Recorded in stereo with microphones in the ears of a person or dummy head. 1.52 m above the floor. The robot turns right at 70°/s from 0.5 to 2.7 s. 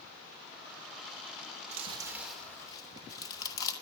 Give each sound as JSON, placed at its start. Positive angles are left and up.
{"t": 1.7, "sound": "chewing", "side_deg": -40, "distance_m": 3.0}